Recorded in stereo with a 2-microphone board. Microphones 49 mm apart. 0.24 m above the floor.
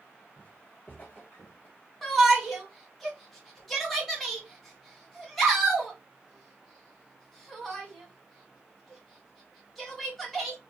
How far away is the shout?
About 1.6 m.